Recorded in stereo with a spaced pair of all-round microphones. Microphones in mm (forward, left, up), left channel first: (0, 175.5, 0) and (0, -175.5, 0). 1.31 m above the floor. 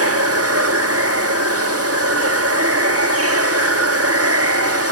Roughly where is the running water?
Right.